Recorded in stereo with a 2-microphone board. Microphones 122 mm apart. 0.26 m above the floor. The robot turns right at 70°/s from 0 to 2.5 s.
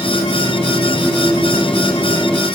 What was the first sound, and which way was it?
Only background noise.